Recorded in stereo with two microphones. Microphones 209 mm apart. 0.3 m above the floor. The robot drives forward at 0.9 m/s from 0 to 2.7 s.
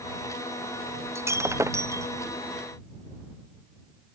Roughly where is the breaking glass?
Centre.